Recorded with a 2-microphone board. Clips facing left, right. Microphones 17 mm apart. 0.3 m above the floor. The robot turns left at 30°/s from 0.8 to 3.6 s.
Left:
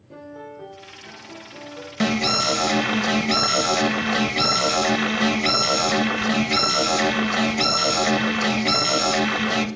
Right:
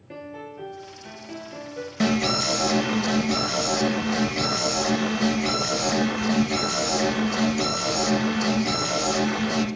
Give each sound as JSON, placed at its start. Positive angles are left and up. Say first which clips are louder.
{"t": 0.1, "sound": "a piano", "louder": "even", "azimuth_deg": -90, "distance_m": 2.0}
{"t": 2.0, "sound": "an alarm", "louder": "left 2 dB", "azimuth_deg": 155, "distance_m": 0.7}